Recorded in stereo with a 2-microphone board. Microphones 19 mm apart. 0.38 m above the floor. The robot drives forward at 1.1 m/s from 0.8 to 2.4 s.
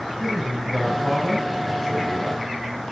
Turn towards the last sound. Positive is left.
turn(degrees=0)  # may be behind; listen again after turning